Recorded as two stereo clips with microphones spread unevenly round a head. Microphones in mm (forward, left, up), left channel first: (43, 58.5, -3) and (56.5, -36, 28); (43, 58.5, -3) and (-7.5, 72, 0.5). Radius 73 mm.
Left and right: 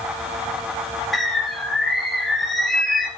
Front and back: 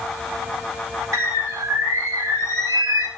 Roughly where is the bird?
Behind.